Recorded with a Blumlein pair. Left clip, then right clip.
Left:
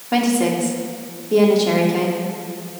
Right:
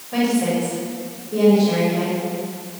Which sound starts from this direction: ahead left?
A woman speaking, at 0.1 s.